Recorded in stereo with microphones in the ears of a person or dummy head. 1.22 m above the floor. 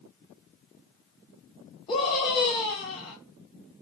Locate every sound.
1.9 s a scream: 30° left (ahead or behind), 1.3 m